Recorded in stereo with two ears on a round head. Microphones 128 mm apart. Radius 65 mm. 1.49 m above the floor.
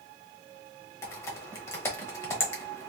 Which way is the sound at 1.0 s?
20° left (ahead or behind).